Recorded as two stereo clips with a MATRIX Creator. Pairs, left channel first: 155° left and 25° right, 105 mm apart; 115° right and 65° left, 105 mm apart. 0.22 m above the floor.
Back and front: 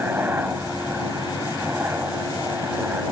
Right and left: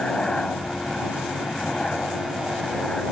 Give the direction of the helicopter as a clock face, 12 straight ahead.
2 o'clock.